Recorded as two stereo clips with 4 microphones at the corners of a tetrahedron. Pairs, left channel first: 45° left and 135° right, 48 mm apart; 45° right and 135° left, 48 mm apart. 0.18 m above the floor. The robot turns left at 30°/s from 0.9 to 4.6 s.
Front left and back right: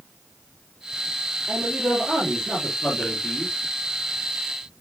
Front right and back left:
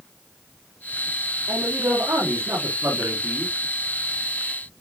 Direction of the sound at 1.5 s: 145° left.